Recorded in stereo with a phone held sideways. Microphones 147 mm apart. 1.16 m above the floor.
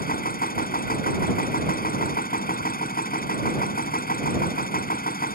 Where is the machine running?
80° left.